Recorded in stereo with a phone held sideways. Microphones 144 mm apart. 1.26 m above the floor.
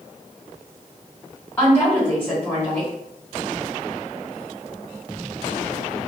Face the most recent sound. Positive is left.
turn(degrees=15)  # may be behind; listen again after turning